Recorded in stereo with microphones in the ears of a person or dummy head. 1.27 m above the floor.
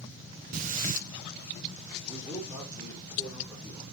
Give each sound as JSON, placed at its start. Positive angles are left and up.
{"t": 0.5, "sound": "breathing", "side_deg": -40, "distance_m": 0.7}
{"t": 2.0, "sound": "a man speaking", "side_deg": 10, "distance_m": 5.0}